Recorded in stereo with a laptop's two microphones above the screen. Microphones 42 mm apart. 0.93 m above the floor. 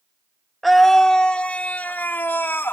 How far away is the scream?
About 1.6 m.